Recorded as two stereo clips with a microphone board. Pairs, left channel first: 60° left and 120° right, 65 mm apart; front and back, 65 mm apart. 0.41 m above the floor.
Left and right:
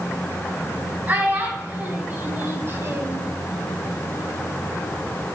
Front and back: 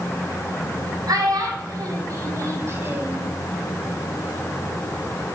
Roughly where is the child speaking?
Behind.